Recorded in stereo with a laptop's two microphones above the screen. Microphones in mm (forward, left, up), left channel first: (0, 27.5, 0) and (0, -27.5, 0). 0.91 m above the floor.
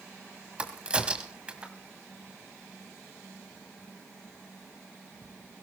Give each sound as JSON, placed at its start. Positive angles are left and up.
{"t": 0.6, "sound": "a crack", "side_deg": -20, "distance_m": 1.5}